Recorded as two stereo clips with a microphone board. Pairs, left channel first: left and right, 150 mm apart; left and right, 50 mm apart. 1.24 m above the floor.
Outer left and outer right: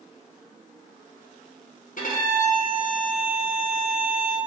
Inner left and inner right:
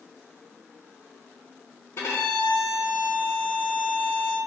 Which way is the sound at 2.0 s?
65° left (ahead or behind).